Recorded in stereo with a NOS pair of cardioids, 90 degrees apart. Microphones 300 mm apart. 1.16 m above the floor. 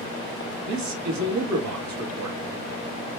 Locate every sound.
0.7 s a man speaking: 70° right, 1.4 m